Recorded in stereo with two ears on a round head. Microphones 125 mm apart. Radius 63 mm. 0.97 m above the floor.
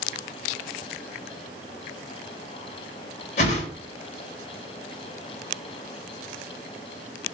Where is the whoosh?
50° left (ahead or behind), 1.0 m.